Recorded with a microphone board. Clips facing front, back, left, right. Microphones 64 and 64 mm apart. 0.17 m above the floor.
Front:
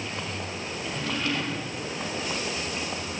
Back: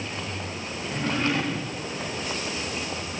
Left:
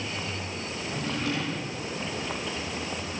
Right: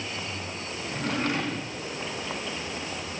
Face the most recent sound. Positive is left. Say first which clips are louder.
# back 4 dB, right 3 dB
turn(degrees=-125)